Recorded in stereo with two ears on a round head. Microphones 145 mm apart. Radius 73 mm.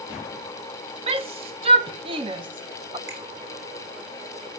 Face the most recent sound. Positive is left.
turn(degrees=-75)  # may be behind; listen again after turning